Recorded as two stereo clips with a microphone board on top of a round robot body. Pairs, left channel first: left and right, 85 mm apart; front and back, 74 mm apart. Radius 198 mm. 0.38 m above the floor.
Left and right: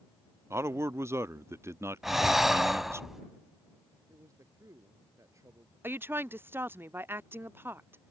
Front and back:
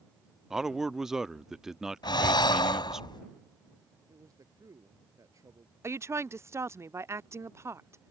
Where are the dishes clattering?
No dishes clattering in this recording.